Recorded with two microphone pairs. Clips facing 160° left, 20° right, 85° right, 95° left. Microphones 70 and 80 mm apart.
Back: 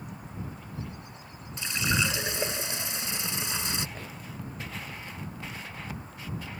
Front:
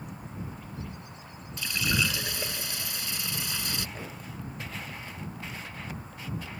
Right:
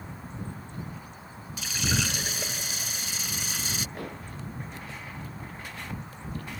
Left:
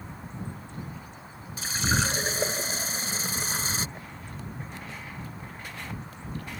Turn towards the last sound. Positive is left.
turn(degrees=-100)